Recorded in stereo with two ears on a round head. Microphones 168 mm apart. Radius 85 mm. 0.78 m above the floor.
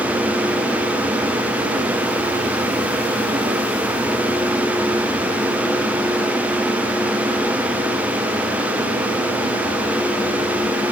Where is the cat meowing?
No cat meowing in this recording.